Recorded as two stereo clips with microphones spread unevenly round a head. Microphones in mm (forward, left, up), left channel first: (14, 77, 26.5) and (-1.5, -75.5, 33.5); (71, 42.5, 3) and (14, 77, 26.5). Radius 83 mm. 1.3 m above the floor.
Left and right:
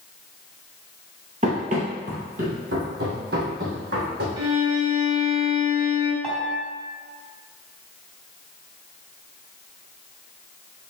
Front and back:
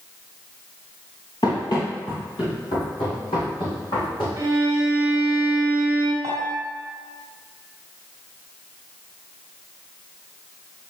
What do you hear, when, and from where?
1.4 s running footsteps: 80° right, 1.6 m
4.4 s a violin: 150° right, 2 m
6.2 s a piano: 170° left, 1.9 m